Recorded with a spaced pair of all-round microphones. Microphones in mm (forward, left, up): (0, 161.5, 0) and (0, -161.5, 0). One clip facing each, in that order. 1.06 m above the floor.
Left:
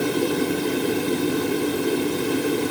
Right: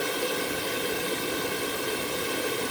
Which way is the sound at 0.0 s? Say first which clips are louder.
Left 9 dB; 60° left (ahead or behind).